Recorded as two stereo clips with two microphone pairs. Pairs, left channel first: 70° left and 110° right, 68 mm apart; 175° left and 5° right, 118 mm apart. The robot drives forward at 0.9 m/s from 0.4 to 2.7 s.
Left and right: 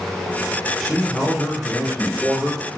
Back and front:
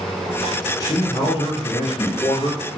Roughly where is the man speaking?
Behind left.